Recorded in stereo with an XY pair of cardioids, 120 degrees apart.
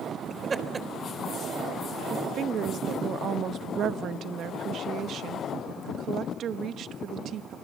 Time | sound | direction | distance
0.3 | laughter | 30° right | 3.5 m
2.1 | a woman speaking | 55° right | 1.0 m